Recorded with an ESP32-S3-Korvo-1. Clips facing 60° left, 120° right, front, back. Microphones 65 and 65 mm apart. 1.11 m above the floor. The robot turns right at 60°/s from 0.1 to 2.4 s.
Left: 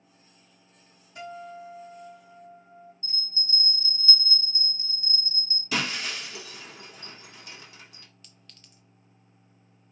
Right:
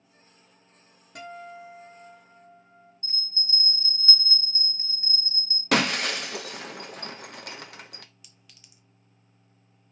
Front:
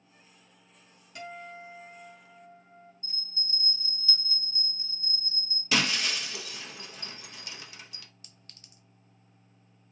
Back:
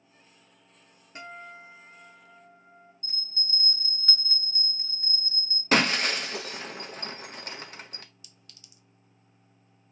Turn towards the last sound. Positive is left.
turn(degrees=-40)